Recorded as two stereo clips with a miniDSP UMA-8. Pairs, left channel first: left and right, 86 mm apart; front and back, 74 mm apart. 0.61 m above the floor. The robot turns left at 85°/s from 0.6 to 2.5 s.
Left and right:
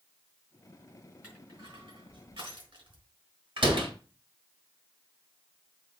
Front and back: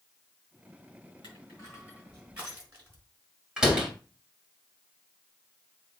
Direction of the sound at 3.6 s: 100° right.